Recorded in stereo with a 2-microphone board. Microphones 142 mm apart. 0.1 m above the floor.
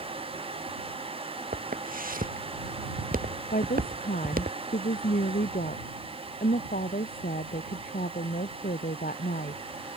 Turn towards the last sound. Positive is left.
turn(degrees=85)